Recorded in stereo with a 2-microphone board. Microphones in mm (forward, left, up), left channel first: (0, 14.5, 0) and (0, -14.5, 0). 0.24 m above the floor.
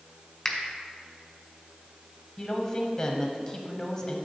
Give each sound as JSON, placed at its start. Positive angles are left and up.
{"t": 0.5, "sound": "a finger snap", "side_deg": 5, "distance_m": 1.4}
{"t": 2.4, "sound": "a woman speaking", "side_deg": 15, "distance_m": 1.1}